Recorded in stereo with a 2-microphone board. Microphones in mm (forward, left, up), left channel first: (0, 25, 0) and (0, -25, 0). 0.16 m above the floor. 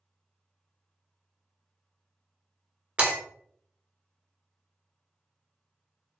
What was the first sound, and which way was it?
Breaking glass, 30° right (ahead or behind).